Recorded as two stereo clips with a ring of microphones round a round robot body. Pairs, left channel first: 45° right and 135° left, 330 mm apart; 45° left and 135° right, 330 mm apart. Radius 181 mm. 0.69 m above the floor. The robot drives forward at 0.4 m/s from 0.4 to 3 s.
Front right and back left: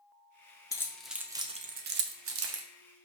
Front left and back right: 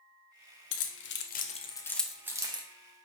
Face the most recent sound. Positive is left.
turn(degrees=160)